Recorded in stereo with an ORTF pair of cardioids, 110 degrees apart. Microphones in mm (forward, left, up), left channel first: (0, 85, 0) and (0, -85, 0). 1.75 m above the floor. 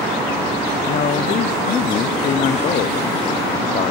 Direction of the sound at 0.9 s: 45° left.